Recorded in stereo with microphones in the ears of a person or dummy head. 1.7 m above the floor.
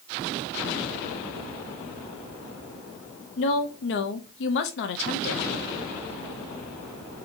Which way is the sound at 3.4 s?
60° left (ahead or behind).